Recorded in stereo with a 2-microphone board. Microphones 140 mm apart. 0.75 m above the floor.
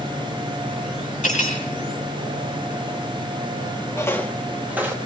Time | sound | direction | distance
1.2 | cutlery clinking | 60° left (ahead or behind) | 4.5 m
4.0 | footsteps | 20° left (ahead or behind) | 1.2 m